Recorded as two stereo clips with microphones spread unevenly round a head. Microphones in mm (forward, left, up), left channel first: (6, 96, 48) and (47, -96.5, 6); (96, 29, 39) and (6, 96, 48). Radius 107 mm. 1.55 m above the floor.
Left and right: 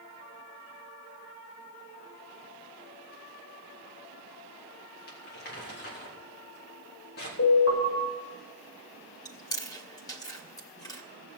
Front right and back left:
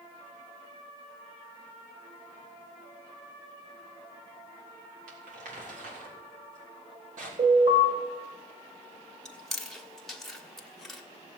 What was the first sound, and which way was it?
Crumpling, 150° left.